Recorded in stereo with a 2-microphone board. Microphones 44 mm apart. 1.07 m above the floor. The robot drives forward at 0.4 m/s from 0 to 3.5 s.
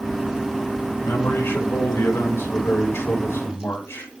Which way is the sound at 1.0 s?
75° left (ahead or behind).